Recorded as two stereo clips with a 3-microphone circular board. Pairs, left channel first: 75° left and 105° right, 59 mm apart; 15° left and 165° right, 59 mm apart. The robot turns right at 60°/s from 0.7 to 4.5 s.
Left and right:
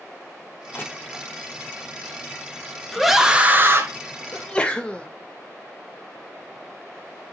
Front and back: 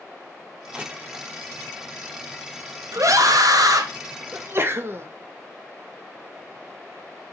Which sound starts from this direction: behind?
A scream, at 2.9 s.